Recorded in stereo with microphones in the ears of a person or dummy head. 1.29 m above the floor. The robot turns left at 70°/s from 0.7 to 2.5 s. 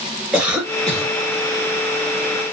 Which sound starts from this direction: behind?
A cough, at 0.3 s.